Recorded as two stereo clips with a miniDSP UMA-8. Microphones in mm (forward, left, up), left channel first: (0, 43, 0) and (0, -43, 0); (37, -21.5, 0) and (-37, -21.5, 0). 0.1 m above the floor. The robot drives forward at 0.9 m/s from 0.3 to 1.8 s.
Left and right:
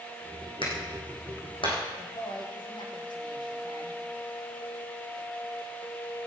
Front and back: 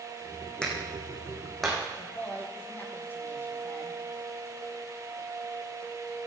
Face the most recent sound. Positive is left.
turn(degrees=65)